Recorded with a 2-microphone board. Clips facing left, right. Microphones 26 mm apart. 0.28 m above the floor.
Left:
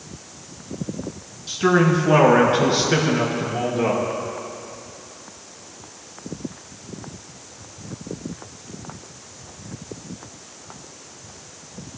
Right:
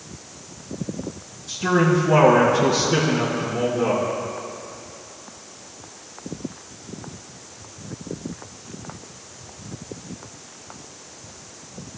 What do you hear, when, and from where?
1.5 s a man speaking: 70° left (ahead or behind), 3.5 m